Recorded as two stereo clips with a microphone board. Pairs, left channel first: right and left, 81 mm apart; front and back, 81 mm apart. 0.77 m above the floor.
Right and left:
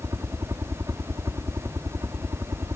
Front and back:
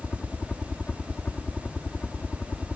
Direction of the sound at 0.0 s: 65° left.